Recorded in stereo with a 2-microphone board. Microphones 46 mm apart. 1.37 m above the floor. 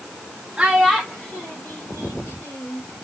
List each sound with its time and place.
0.6 s a child speaking: 10° right (ahead or behind), 1.2 m; by 2.8 s 55° left (ahead or behind), 2.5 m